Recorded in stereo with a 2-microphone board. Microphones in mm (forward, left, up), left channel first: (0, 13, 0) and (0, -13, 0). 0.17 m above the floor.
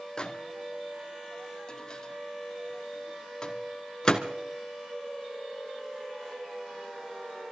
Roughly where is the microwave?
Left.